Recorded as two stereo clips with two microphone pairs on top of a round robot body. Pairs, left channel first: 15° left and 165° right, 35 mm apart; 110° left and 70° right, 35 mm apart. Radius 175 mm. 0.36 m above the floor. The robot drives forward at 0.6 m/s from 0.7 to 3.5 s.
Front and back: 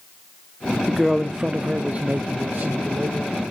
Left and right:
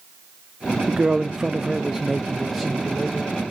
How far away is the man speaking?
About 0.8 m.